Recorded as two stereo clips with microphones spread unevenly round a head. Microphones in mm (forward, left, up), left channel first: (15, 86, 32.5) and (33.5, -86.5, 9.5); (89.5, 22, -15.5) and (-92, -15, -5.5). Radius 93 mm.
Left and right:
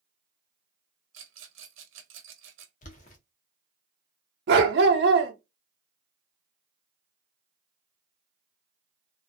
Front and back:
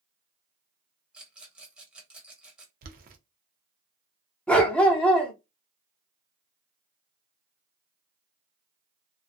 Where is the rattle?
85° right, 0.8 m.